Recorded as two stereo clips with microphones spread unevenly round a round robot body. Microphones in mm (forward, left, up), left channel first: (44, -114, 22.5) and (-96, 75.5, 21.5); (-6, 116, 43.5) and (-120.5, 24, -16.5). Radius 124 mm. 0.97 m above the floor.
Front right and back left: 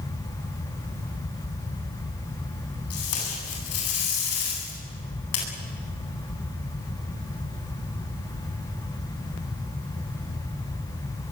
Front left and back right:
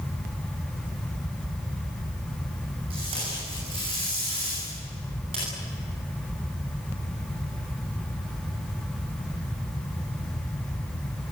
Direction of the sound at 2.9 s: 75° right.